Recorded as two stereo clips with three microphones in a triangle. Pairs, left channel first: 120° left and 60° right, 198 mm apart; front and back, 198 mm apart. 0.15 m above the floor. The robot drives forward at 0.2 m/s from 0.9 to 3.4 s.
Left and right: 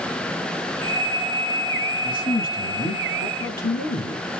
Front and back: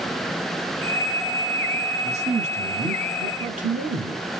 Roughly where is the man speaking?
Behind left.